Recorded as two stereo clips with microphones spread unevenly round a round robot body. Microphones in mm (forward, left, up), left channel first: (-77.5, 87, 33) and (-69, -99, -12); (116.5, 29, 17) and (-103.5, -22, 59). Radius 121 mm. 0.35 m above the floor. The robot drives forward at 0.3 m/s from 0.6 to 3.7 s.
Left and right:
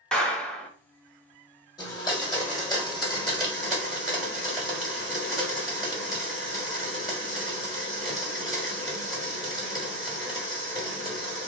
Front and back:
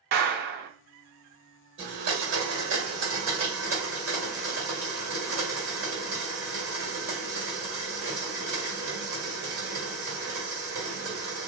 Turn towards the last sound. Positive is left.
turn(degrees=170)